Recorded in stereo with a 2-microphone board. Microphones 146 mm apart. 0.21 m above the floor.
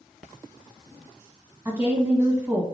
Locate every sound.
1.6 s a woman speaking: 15° right (ahead or behind), 1.5 m